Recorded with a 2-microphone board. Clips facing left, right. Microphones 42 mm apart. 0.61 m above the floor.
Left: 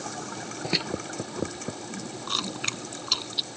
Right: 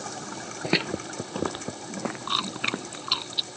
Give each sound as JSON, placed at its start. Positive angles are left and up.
{"t": 0.6, "sound": "footsteps", "side_deg": -10}
{"t": 2.3, "sound": "chewing", "side_deg": -20}